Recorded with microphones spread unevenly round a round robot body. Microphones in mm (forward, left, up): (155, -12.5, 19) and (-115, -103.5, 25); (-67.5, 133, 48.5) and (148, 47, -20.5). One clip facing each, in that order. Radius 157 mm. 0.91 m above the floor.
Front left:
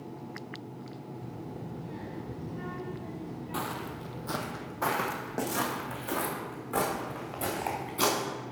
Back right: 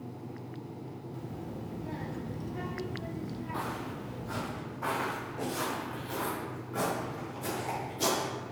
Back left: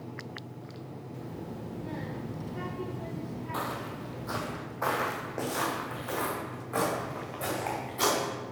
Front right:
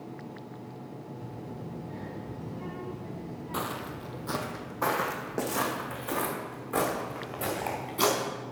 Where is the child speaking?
170° left, 1.5 m.